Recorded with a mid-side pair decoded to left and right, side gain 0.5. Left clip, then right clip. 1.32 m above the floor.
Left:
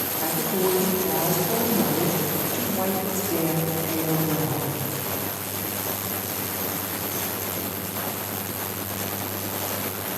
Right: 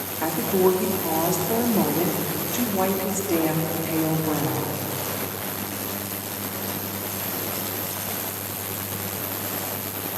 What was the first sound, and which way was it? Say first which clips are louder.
A woman speaking: right 5 dB; 35° right.